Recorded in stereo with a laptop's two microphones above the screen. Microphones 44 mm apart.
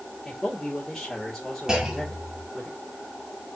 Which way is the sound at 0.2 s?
15° left (ahead or behind).